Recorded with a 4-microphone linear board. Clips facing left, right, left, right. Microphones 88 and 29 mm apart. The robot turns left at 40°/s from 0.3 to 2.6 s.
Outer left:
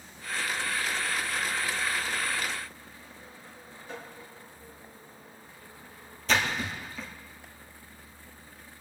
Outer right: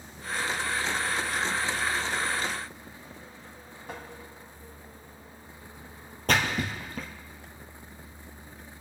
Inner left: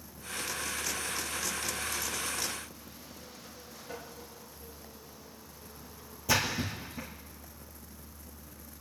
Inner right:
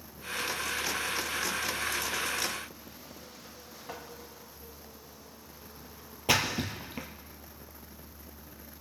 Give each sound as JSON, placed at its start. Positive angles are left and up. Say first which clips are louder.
{"t": 3.9, "sound": "tapping", "louder": "outer right 1 dB, inner right 1 dB", "side_deg": -60, "distance_m": 3.0}
{"t": 6.3, "sound": "a splash", "louder": "outer right 1 dB, inner right 2 dB", "side_deg": -55, "distance_m": 2.5}